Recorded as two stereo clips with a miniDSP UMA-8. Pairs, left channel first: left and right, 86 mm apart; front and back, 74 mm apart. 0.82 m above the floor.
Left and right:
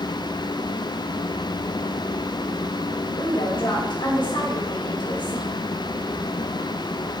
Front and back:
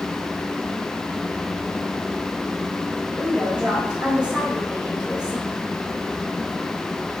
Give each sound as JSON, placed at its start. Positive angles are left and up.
{"t": 3.2, "sound": "a woman speaking", "azimuth_deg": 105, "distance_m": 4.0}